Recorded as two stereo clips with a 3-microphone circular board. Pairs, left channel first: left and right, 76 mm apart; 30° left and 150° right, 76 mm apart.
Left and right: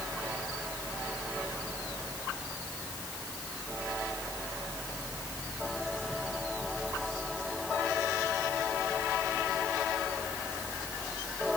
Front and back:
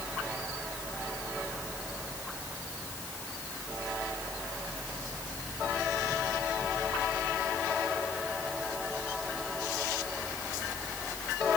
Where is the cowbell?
I don't hear a cowbell.